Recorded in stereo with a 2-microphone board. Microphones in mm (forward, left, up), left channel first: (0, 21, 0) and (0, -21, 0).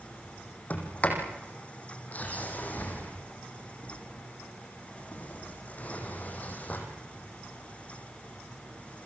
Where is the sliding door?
40° left (ahead or behind), 5 m.